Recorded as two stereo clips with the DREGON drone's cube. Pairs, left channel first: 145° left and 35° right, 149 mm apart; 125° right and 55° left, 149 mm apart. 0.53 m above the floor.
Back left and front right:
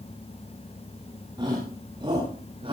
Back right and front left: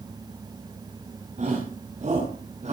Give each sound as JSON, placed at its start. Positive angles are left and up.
{"t": 1.4, "sound": "a shout", "azimuth_deg": 25, "distance_m": 6.0}